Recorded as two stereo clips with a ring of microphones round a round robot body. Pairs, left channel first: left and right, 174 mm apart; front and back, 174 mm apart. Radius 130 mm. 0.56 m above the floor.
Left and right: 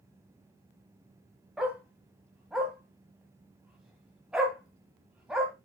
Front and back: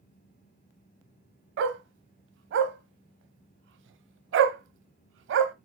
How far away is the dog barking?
About 1.1 m.